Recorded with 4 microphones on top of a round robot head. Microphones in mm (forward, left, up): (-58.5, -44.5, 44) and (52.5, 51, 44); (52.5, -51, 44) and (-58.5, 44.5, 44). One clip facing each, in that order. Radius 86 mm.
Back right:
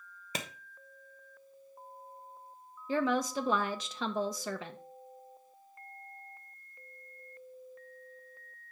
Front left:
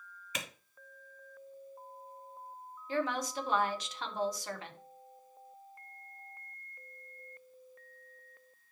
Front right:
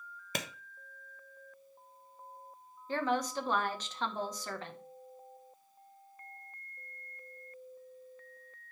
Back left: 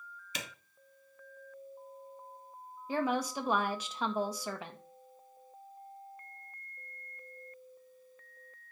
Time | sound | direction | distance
0.3 | a clap | 85° right | 1.1 m
2.9 | a woman speaking | 140° right | 1.2 m